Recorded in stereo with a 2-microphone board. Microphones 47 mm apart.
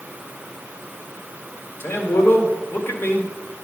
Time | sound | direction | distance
1.8 | a man speaking | 55° left (ahead or behind) | 2 m